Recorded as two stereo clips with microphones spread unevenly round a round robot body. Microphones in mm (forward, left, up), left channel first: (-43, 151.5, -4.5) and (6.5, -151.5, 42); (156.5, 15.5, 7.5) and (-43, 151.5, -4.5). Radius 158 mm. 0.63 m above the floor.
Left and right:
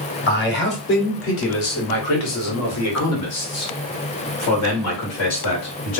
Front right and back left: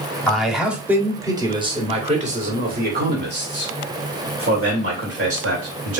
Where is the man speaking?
55° left, 1.8 m; by 6.0 s 130° left, 3 m.